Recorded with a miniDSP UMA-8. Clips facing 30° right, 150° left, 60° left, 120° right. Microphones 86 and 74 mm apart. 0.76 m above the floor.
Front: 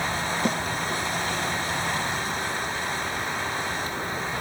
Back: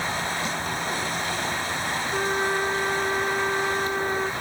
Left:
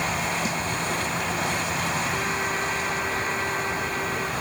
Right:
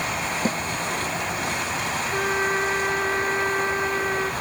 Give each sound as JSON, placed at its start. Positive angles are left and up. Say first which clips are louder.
{"t": 0.5, "sound": "a snare drum", "louder": "front 4 dB, right 3 dB", "azimuth_deg": -70}
{"t": 2.1, "sound": "a trumpet", "louder": "back 5 dB, right 4 dB", "azimuth_deg": -175}